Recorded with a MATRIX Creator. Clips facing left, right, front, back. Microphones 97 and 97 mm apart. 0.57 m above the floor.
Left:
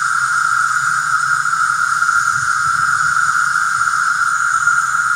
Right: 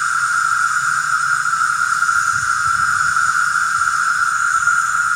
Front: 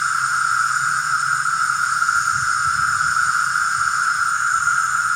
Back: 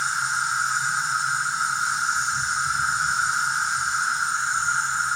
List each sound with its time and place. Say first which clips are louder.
0.0 s an insect: left 1 dB, front 6 dB; 20° left, 2.5 m